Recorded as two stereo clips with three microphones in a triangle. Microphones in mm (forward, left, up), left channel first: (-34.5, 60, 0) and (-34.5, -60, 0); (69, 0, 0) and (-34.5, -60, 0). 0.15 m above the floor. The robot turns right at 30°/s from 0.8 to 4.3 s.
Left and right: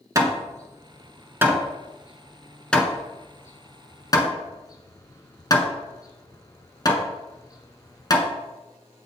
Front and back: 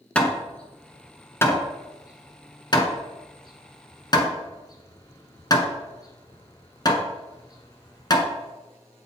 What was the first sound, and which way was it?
Hammering, 45° right.